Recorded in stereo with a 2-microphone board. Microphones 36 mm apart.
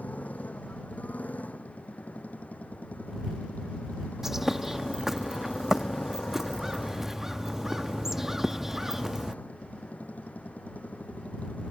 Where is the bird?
10° right (ahead or behind).